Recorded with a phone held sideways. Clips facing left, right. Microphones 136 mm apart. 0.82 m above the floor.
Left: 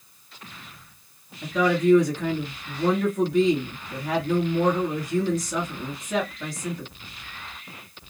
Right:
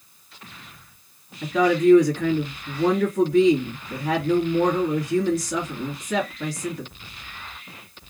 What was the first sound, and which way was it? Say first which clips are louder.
A woman speaking: right 3 dB; 70° right (ahead or behind).